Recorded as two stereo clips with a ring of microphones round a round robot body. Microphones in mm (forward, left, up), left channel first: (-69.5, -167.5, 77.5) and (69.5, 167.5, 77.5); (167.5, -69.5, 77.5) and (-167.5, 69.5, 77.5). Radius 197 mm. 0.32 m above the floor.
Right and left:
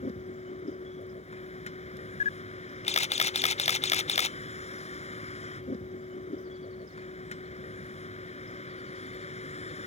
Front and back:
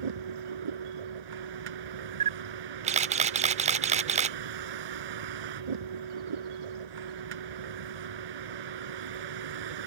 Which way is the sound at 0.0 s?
175° left.